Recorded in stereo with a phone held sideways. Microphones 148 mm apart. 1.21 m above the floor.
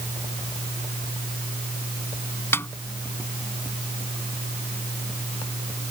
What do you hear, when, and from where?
2.5 s a snare drum: 15° left (ahead or behind)